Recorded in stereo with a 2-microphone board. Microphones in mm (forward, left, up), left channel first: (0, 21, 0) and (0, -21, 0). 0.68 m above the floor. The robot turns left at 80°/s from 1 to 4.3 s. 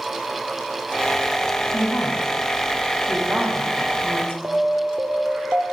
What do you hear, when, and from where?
1.7 s a woman speaking: 75° left (ahead or behind), 5 m; by 4.3 s 70° right (ahead or behind), 5 m
4.4 s an alarm: 35° right (ahead or behind), 2 m